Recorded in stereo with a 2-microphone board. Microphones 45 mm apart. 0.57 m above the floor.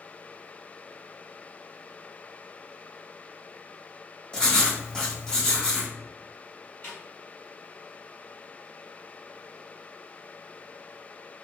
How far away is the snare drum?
About 1.8 m.